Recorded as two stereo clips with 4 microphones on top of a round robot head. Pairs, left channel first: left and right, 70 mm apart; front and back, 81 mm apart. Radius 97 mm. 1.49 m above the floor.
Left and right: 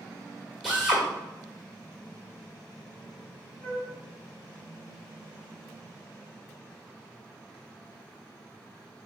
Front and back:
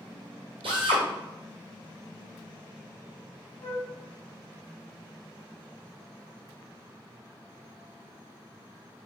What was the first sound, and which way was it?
A drill, straight behind.